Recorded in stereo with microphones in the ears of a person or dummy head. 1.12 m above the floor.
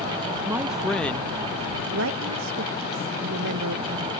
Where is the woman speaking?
65° right (ahead or behind).